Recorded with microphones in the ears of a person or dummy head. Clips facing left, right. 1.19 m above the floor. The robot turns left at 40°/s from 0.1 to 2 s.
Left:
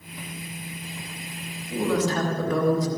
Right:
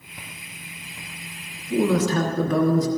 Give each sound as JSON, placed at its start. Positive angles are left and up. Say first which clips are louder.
{"t": 1.7, "sound": "a woman speaking", "louder": "right 4 dB", "side_deg": -75, "distance_m": 1.9}